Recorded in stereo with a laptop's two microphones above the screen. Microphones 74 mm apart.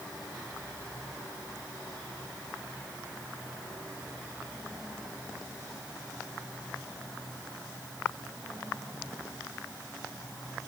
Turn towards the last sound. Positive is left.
No sound to turn to.